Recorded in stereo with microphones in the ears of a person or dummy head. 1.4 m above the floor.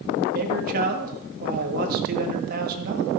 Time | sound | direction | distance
0.3 | a man speaking | 45° right (ahead or behind) | 2 m